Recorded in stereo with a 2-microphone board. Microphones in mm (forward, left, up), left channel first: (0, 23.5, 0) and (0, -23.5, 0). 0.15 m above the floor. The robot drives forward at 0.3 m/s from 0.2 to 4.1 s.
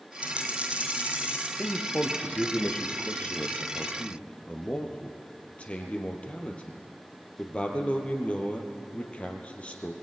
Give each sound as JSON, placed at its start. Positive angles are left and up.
{"t": 0.2, "sound": "a dropped coin", "side_deg": -25, "distance_m": 3.0}
{"t": 1.6, "sound": "a man speaking", "side_deg": 35, "distance_m": 2.5}